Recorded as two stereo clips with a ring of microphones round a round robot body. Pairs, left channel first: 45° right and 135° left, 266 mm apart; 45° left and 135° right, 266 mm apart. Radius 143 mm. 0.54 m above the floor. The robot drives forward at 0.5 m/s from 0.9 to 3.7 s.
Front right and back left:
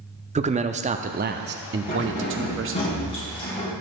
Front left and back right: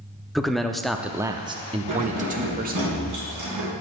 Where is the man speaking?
135° left, 0.6 m; by 2.9 s 170° left, 1.3 m.